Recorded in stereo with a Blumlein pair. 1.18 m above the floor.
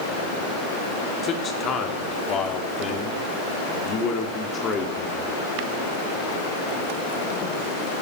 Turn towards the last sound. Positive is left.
turn(degrees=25)